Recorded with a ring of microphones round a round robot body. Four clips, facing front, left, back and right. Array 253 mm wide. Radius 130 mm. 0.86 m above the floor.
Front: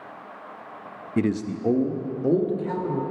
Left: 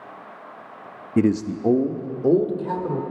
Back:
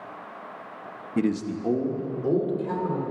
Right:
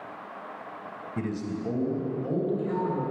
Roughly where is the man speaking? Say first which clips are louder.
Left 12 dB, front 1 dB; left.